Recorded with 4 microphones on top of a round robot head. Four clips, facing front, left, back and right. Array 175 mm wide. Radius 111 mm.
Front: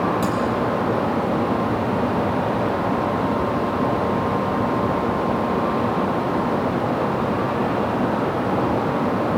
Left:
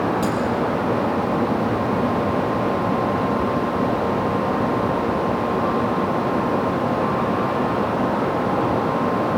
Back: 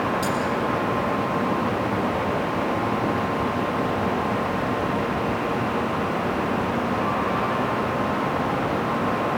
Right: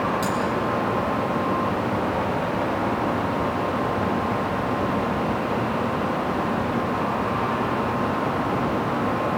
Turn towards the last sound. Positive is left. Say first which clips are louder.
# left 3 dB, front 3 dB
turn(degrees=-45)